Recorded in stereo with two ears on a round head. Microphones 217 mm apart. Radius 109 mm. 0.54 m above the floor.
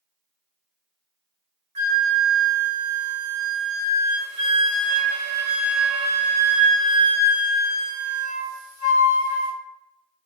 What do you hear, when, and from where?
1.8 s a flute: 70° right (ahead or behind), 0.8 m